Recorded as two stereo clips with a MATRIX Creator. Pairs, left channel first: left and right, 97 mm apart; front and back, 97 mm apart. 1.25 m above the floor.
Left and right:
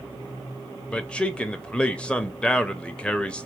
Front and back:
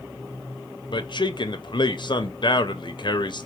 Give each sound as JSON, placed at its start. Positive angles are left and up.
{"t": 0.9, "sound": "a man speaking", "azimuth_deg": 10, "distance_m": 0.7}